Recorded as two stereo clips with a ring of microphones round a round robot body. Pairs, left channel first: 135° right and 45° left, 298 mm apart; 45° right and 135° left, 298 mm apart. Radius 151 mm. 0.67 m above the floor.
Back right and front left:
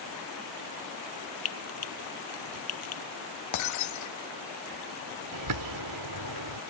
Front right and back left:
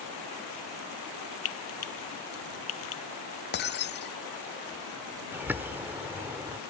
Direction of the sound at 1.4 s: 90° right.